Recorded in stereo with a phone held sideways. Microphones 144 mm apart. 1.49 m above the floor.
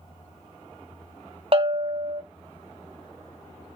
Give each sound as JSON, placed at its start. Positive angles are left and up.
{"t": 1.5, "sound": "a bell", "side_deg": -40, "distance_m": 0.6}